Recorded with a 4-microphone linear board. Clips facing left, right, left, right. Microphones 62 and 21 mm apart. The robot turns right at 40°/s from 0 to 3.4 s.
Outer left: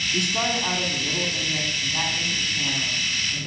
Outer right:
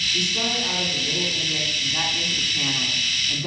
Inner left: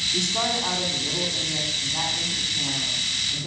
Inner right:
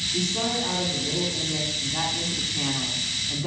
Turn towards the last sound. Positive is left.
turn(degrees=-130)